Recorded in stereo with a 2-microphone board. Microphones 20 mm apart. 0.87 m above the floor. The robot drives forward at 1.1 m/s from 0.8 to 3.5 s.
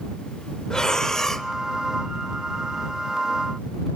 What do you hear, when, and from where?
0.7 s breathing: 45° left (ahead or behind), 0.7 m; by 1.5 s 25° left (ahead or behind), 1.1 m